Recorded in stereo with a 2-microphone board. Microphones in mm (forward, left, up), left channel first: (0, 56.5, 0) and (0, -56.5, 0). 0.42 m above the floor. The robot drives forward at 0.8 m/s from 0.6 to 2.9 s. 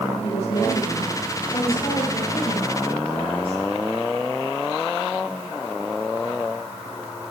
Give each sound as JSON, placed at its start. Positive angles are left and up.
{"t": 0.2, "sound": "a woman speaking", "side_deg": 60, "distance_m": 7.0}